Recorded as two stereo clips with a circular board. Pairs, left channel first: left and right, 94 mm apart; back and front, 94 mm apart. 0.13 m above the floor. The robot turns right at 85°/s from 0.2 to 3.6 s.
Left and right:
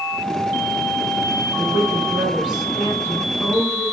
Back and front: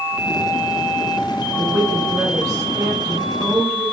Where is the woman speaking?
80° right, 1.7 m; by 3.8 s 90° left, 1.7 m.